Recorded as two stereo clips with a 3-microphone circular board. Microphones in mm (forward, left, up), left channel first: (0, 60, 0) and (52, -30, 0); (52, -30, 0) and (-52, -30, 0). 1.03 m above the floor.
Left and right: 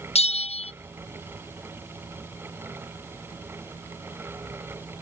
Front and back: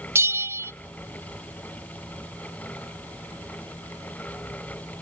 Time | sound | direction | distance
0.1 | a bell | 115° left | 0.6 m